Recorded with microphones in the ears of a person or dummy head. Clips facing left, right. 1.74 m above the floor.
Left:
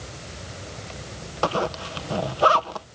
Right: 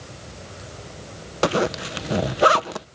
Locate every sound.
1.4 s a zipper: 30° right (ahead or behind)